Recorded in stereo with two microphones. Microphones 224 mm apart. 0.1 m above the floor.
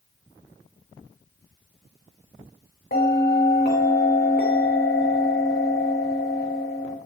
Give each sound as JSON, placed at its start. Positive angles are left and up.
{"t": 2.9, "sound": "a bell", "side_deg": 50, "distance_m": 4.0}